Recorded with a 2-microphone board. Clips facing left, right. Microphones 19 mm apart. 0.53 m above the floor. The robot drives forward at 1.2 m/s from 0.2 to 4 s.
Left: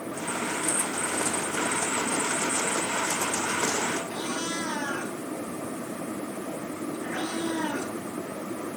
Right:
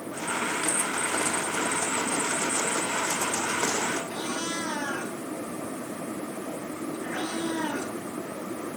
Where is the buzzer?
No buzzer in this recording.